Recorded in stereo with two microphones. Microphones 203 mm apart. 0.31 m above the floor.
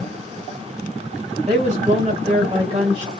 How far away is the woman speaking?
About 1.7 m.